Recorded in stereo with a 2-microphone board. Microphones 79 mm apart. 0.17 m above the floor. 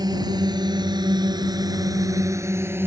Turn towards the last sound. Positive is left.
turn(degrees=-25)  # may be behind; listen again after turning